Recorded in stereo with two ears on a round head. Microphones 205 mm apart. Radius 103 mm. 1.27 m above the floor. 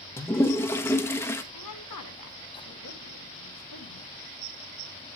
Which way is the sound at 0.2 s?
10° left (ahead or behind).